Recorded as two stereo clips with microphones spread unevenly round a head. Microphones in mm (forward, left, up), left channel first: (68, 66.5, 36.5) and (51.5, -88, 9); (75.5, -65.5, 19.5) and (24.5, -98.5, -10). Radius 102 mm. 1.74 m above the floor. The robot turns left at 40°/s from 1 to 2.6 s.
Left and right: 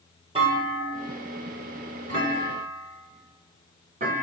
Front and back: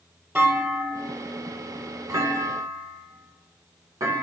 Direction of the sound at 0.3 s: 70° right.